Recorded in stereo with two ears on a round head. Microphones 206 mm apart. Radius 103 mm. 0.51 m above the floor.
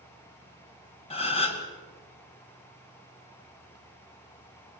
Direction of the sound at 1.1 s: 25° left (ahead or behind).